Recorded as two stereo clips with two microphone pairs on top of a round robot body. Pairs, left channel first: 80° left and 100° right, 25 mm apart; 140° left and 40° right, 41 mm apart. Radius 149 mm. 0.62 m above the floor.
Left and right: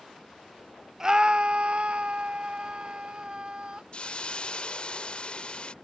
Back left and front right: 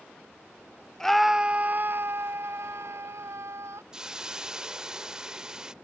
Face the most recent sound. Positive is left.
turn(degrees=35)